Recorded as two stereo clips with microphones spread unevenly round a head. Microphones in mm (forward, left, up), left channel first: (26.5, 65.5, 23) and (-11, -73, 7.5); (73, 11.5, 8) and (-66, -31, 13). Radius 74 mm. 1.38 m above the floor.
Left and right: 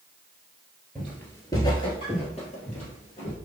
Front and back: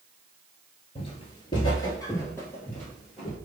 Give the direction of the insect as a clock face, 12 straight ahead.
I don't hear an insect.